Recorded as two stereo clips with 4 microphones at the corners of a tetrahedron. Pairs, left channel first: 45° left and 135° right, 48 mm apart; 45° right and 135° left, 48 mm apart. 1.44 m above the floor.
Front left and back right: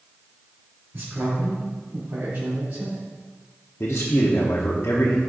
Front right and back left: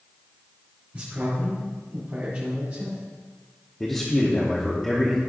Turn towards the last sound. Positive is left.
turn(degrees=30)